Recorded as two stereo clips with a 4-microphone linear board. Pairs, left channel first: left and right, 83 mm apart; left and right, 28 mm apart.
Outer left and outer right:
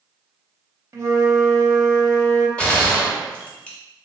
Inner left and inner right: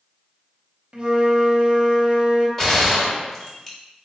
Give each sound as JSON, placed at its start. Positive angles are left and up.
{"t": 0.9, "sound": "a flute", "side_deg": -40, "distance_m": 0.6}
{"t": 2.6, "sound": "a gunshot", "side_deg": 15, "distance_m": 1.1}